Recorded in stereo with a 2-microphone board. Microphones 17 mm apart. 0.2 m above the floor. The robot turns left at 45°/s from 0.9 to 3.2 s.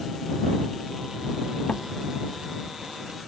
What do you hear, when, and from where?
1.7 s a door slam: 60° left (ahead or behind); by 1.9 s 70° left (ahead or behind)